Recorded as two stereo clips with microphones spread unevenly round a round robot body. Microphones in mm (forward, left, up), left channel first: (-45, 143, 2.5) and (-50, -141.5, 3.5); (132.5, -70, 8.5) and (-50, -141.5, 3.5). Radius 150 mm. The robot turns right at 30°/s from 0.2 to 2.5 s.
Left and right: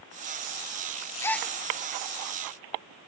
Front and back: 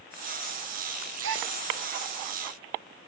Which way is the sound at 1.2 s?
170° left.